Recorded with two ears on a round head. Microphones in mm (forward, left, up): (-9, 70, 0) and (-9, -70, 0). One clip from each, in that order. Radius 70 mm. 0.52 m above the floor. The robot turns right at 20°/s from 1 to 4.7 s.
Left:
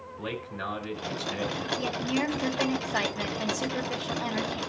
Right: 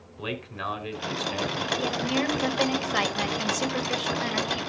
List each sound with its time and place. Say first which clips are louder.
0.2 s a man speaking: right 2 dB; 70° right (ahead or behind), 5 m; by 1.7 s 55° right (ahead or behind), 5 m
1.8 s a woman speaking: right 3 dB; 160° right, 2 m; by 4.6 s 105° right, 2 m